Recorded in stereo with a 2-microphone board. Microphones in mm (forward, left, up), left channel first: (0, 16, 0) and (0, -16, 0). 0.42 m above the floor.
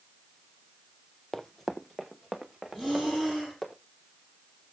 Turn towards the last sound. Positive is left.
turn(degrees=10)  # may be behind; listen again after turning